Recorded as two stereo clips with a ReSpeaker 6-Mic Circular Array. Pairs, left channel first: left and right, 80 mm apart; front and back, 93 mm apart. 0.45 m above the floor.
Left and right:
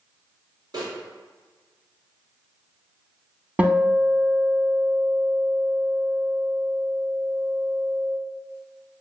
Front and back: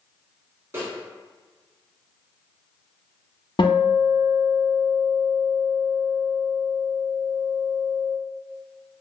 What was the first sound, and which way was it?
A snare drum, 115° right.